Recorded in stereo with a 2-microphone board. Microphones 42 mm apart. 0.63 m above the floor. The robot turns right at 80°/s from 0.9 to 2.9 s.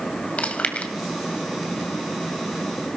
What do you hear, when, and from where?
0.4 s chewing: 30° left (ahead or behind), 2 m